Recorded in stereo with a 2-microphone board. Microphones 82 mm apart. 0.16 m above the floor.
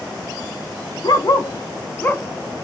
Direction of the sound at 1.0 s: 55° left (ahead or behind).